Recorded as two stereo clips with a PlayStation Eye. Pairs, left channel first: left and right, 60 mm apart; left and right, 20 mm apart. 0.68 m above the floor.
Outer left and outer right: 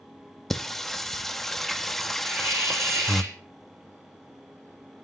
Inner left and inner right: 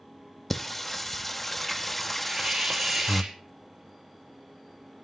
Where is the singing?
5° left (ahead or behind), 0.6 m.